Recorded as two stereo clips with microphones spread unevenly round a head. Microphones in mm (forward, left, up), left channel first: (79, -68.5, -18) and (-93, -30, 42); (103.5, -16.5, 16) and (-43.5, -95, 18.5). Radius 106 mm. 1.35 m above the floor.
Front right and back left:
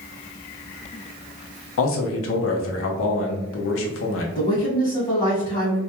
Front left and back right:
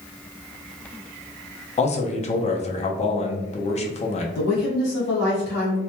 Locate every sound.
1.8 s a man speaking: 25° right, 0.6 m
4.3 s a woman speaking: 55° left, 1.2 m